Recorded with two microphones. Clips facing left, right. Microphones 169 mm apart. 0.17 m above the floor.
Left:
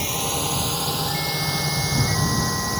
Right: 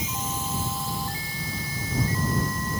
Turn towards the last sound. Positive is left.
turn(degrees=75)  # may be behind; listen again after turning